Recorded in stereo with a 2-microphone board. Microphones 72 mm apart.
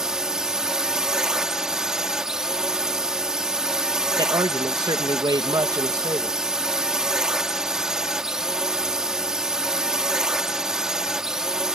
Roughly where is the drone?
Centre.